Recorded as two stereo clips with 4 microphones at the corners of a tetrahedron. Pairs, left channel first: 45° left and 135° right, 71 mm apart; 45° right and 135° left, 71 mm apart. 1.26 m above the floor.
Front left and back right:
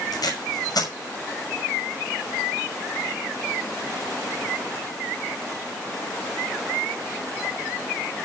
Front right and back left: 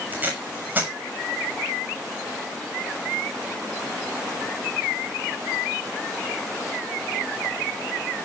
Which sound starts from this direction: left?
Tape being pulled, at 0.1 s.